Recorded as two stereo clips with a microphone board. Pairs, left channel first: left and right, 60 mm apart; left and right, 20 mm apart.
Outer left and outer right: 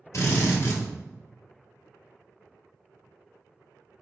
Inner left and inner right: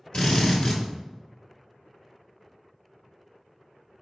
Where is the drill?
55° left (ahead or behind), 1.5 m.